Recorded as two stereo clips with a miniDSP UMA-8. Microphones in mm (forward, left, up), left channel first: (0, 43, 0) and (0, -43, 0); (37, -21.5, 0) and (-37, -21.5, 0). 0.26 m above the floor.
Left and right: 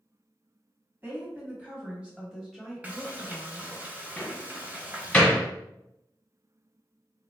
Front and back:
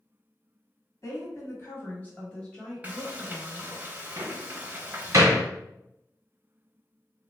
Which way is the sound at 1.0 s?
25° right.